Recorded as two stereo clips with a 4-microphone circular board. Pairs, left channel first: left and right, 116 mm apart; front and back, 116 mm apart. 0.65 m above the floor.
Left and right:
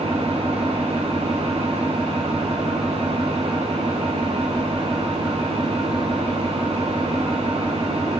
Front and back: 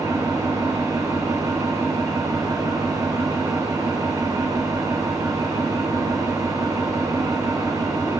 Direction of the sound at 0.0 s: 120° right.